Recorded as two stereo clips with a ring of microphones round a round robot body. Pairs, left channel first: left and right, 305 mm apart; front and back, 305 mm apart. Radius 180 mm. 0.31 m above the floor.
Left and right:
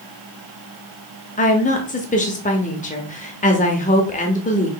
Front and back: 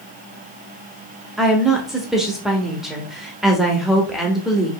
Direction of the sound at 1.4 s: 95° left.